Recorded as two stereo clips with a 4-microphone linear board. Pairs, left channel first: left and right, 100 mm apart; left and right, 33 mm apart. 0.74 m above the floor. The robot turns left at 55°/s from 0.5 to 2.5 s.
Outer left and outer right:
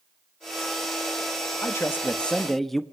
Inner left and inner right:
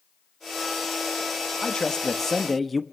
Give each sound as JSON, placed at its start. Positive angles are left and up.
{"t": 1.6, "sound": "a man speaking", "azimuth_deg": 55, "distance_m": 1.0}